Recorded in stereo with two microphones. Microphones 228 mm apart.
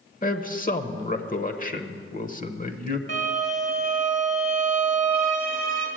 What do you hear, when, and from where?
0.2 s a man speaking: 35° left (ahead or behind), 1.0 m
3.1 s a violin: 55° left (ahead or behind), 2.5 m